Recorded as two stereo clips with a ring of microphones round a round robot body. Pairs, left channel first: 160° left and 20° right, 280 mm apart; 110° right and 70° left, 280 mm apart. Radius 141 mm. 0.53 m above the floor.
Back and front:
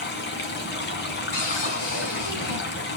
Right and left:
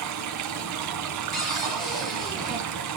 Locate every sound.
0.0 s running water: 100° left, 2.5 m
1.3 s a cupboard door: 160° left, 6 m